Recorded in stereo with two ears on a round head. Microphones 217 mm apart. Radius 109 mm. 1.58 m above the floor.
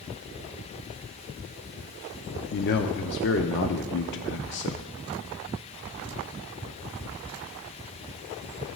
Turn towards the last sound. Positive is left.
turn(degrees=50)  # may be behind; listen again after turning